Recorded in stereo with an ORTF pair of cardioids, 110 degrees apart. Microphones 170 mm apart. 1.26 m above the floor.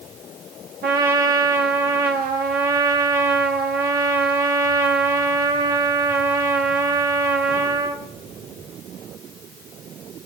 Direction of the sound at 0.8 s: 70° right.